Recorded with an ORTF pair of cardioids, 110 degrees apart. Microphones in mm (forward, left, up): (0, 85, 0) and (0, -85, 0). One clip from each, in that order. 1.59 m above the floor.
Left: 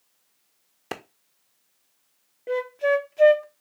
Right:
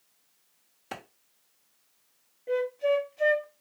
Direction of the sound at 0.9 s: 45° left.